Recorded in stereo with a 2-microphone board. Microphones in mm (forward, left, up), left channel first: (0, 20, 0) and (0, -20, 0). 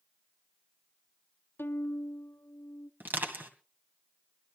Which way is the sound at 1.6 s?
80° left.